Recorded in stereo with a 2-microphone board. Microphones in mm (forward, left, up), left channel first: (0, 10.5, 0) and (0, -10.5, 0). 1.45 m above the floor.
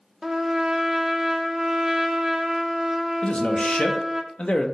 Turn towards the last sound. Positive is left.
turn(degrees=75)  # may be behind; listen again after turning